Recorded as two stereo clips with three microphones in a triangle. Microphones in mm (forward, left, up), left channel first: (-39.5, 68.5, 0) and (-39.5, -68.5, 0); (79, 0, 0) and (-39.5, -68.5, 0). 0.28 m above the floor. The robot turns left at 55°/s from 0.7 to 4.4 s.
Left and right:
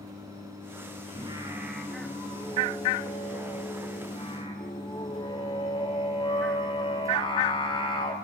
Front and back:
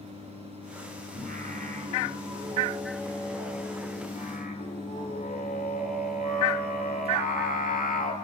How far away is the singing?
About 4 m.